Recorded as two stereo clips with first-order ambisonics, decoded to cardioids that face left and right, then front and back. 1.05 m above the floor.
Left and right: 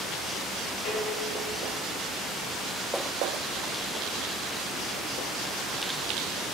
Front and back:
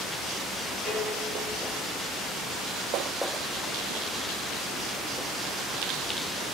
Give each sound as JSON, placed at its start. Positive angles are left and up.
{"t": 0.8, "sound": "dishes clattering", "azimuth_deg": 95, "distance_m": 6.0}